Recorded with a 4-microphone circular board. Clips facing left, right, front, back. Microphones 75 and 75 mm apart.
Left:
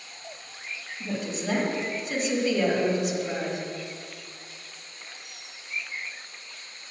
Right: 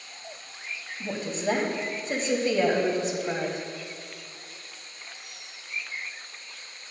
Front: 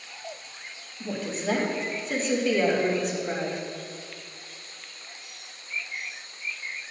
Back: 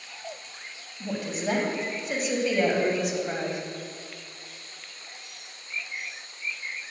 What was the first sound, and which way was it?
A woman speaking, 105° right.